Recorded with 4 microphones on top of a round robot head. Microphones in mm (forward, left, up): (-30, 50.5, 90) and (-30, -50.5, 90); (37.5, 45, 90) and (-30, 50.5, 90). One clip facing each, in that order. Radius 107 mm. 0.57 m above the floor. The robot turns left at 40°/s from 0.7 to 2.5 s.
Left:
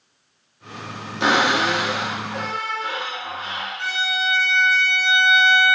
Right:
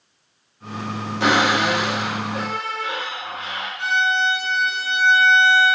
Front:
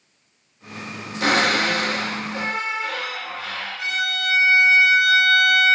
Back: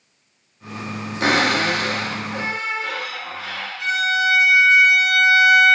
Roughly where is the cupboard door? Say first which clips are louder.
Even, back 1 dB; behind left.